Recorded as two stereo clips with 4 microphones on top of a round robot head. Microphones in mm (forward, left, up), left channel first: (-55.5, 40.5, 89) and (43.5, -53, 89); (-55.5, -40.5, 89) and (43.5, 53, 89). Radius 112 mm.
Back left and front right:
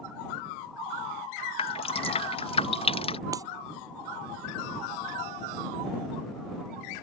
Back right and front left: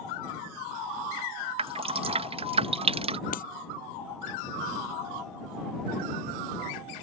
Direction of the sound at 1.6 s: 90° left.